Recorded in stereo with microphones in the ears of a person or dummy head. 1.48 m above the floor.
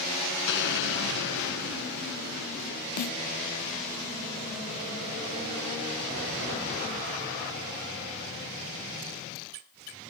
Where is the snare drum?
50° left (ahead or behind).